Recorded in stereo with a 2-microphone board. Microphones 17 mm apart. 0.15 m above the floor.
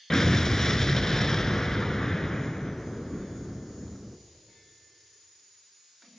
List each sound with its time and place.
0.1 s an explosion: 30° left (ahead or behind), 0.6 m